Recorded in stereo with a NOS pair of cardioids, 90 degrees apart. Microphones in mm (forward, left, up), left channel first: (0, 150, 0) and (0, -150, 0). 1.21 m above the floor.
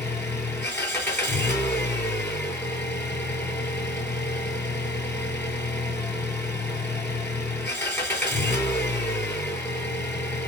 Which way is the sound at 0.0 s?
10° left.